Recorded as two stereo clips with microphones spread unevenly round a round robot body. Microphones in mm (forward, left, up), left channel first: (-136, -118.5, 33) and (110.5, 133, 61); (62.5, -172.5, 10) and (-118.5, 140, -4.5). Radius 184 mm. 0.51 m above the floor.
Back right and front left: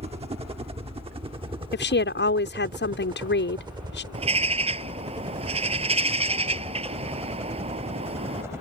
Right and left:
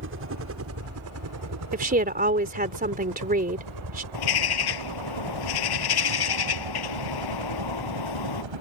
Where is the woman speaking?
Straight behind.